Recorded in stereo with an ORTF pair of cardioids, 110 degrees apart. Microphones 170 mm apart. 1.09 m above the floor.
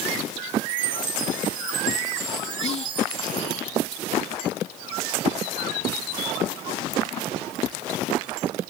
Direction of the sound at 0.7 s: 55° right.